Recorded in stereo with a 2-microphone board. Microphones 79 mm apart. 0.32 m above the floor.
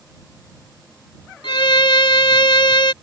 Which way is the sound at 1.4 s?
80° left.